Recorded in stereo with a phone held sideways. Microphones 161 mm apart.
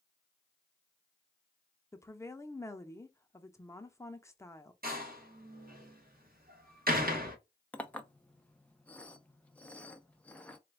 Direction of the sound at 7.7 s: 10° left (ahead or behind).